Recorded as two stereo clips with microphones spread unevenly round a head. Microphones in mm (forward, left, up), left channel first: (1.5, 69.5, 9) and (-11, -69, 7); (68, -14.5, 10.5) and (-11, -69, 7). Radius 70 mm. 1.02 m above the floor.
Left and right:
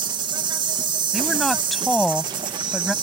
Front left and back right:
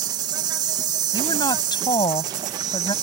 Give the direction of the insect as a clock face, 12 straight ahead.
5 o'clock.